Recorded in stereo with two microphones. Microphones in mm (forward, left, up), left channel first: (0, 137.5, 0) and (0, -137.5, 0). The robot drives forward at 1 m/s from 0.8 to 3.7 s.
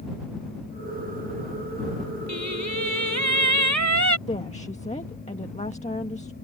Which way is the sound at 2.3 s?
70° right (ahead or behind).